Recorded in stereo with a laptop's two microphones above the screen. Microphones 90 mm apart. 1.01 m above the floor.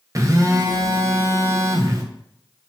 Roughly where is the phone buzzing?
Right.